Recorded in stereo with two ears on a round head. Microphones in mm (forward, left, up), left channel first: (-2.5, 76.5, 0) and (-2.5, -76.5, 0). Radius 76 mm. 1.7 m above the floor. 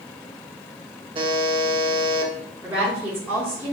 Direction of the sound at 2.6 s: 15° right (ahead or behind).